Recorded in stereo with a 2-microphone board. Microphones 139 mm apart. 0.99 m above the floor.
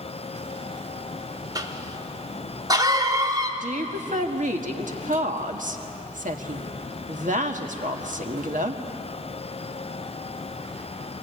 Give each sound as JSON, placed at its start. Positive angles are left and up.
{"t": 1.6, "sound": "a cough", "side_deg": -30, "distance_m": 2.5}
{"t": 3.6, "sound": "a woman speaking", "side_deg": -70, "distance_m": 1.8}